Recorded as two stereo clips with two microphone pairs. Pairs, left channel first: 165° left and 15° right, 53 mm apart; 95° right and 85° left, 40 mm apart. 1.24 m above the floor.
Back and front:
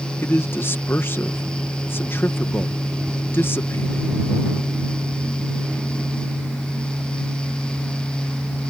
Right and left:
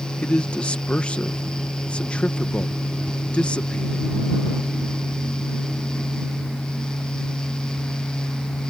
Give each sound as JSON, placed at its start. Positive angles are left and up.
{"t": 0.2, "sound": "a man speaking", "azimuth_deg": -155}